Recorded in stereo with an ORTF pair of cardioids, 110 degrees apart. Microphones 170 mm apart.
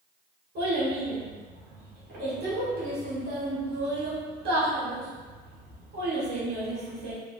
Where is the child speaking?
70° right, 1.9 m.